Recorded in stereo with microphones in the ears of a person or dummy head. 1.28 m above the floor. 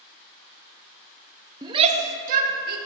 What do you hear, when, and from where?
1.6 s a shout: 20° right (ahead or behind), 0.7 m; by 2.8 s 55° right (ahead or behind), 1.3 m